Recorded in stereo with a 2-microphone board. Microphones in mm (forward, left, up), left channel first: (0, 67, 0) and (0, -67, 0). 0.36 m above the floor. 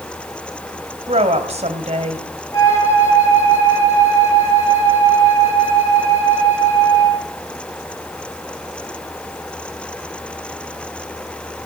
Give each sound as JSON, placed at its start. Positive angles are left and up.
{"t": 1.1, "sound": "a woman speaking", "side_deg": -55, "distance_m": 2.5}
{"t": 2.5, "sound": "a flute", "side_deg": 25, "distance_m": 7.0}